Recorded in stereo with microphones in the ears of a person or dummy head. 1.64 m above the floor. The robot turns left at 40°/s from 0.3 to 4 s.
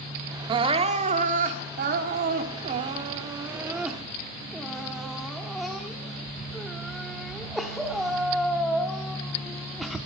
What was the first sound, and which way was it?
Crying, 40° right.